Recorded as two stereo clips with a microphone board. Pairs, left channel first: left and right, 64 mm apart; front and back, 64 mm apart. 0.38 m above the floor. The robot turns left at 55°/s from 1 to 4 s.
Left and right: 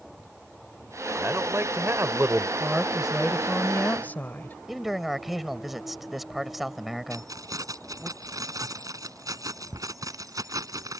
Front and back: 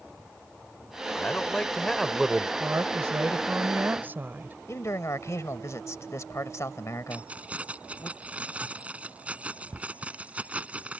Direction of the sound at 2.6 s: 145° right.